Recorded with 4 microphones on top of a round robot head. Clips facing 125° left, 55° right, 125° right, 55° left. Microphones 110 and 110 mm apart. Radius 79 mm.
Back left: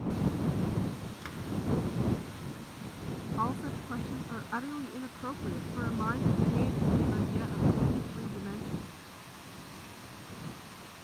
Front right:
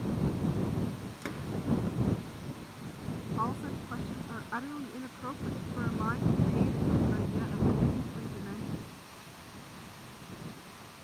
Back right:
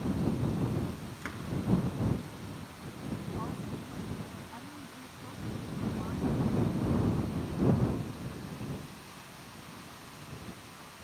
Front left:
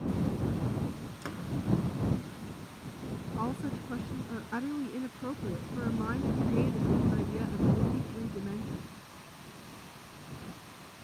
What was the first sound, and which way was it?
A door slam, 10° right.